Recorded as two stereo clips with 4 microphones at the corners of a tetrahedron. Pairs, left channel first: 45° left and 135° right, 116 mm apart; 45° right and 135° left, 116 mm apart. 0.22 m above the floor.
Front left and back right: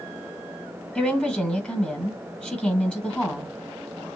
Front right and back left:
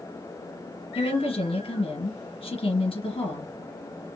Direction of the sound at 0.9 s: 35° right.